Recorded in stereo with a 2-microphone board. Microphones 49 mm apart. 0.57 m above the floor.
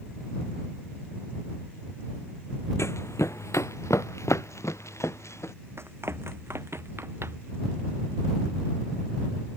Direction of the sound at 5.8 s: 55° right (ahead or behind).